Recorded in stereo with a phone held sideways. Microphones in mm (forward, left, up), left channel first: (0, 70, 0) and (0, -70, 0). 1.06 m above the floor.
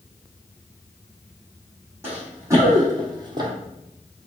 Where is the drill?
No drill in this recording.